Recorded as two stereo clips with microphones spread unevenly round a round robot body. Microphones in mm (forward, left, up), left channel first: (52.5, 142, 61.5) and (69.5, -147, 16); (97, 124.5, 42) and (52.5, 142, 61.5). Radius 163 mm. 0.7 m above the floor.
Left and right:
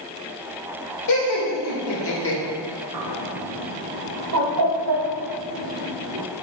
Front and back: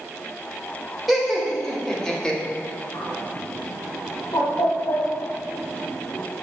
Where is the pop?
No pop in this recording.